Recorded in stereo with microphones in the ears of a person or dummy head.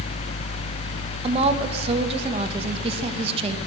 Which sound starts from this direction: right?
A woman speaking, at 1.2 s.